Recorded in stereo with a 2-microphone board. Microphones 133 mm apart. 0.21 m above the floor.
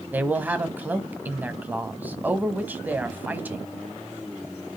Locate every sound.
0.1 s a man speaking: 15° right (ahead or behind), 1.1 m